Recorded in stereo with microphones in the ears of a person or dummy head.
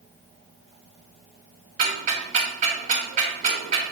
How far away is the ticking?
About 3.5 m.